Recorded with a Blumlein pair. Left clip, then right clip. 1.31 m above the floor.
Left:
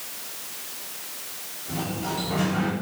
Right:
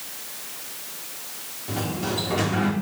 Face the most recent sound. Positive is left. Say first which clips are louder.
# right 2 dB
turn(degrees=-70)